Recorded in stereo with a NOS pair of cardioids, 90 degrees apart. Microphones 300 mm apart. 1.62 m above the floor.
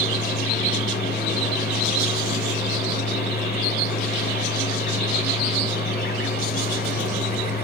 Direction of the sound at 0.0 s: 30° left.